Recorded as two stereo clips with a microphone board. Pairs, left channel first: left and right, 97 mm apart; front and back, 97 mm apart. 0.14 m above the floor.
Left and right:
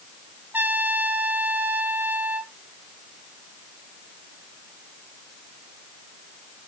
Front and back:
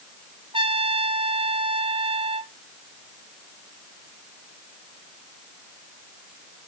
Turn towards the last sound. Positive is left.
turn(degrees=-160)